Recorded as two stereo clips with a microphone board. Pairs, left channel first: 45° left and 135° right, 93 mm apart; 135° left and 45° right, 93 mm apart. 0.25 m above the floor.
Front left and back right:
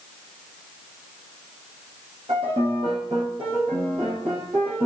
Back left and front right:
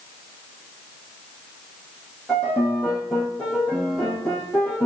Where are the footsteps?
I don't hear footsteps.